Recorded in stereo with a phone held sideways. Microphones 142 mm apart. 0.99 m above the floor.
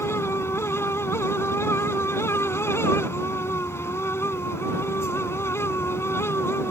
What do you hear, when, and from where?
0.0 s a fan: 20° left (ahead or behind)